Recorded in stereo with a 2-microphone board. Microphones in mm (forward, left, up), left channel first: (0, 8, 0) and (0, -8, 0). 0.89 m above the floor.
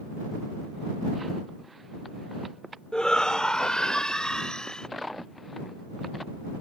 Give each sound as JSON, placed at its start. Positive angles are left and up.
{"t": 2.9, "sound": "a shout", "side_deg": 50}